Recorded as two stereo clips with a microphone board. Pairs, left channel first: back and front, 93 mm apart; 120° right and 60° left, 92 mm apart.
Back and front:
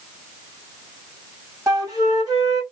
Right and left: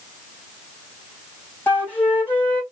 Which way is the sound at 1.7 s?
50° right.